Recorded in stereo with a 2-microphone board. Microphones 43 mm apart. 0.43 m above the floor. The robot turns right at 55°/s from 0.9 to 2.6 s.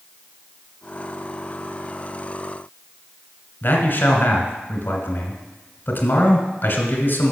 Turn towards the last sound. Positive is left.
turn(degrees=55)  # may be behind; listen again after turning